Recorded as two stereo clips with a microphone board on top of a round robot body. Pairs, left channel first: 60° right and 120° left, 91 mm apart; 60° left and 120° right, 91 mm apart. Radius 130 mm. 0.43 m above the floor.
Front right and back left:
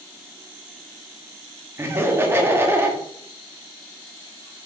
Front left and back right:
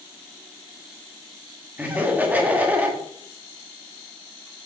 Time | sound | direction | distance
1.8 | laughter | 175° left | 1.8 m